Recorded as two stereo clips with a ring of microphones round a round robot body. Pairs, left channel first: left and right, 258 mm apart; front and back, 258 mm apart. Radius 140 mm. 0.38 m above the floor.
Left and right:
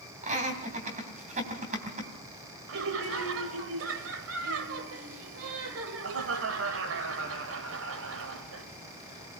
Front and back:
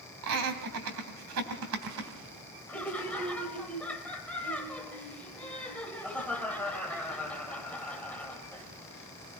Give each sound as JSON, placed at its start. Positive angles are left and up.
{"t": 0.2, "sound": "laughter", "azimuth_deg": -155, "distance_m": 3.0}
{"t": 2.7, "sound": "laughter", "azimuth_deg": -85, "distance_m": 2.0}